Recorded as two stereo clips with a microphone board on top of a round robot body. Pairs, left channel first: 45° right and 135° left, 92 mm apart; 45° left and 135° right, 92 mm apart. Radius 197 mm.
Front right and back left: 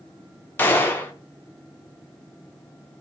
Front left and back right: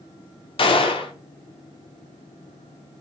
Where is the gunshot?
25° left, 0.6 m.